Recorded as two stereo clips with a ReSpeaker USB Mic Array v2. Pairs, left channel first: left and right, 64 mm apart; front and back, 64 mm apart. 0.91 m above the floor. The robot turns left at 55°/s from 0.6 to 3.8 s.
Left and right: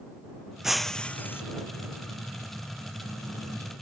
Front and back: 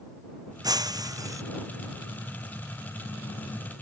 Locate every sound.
0.6 s breaking glass: 175° right; by 1.4 s 145° left